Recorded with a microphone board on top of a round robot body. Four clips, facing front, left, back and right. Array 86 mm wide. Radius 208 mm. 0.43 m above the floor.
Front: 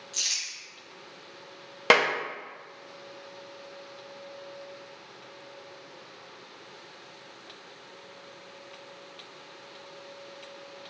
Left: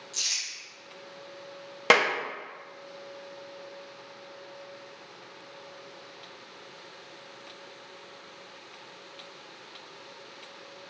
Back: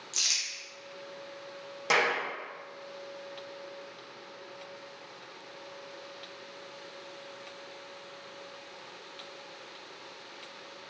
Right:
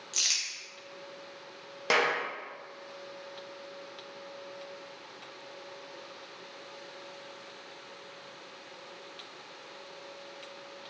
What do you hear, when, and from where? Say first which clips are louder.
0.1 s crumpling: right 2 dB, back 1 dB; 110° right, 0.9 m
1.9 s a clap: left 5 dB, front 5 dB; 40° left, 0.8 m